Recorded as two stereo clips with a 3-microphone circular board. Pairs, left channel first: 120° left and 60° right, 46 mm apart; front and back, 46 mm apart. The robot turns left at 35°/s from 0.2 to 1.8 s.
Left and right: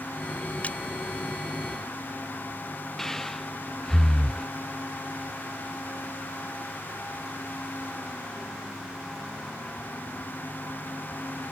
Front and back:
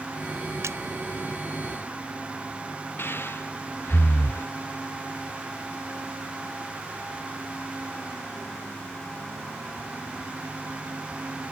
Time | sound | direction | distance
0.6 | a splash | straight behind | ?
3.0 | breathing | 35° left | ?